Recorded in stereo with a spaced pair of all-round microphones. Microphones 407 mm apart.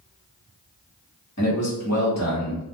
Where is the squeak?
No squeak in this recording.